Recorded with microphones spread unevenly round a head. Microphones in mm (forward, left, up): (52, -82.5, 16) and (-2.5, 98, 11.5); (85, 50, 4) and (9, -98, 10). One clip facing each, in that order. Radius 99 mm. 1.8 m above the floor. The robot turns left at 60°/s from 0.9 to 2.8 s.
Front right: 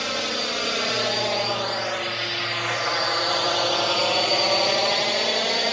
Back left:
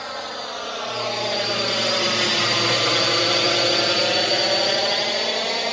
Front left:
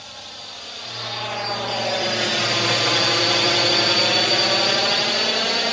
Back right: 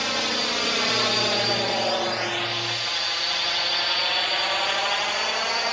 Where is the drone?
130° right; by 5.7 s 10° left.